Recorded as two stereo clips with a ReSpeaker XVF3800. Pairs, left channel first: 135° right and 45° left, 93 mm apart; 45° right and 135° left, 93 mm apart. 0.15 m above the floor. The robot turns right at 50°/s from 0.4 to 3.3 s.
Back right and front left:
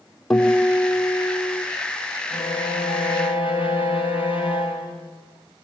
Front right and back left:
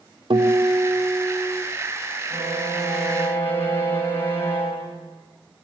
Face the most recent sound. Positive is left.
turn(degrees=-115)